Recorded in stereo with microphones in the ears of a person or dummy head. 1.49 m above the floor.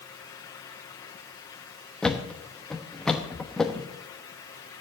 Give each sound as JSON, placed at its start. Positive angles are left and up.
{"t": 2.0, "sound": "a thud", "side_deg": 5, "distance_m": 1.0}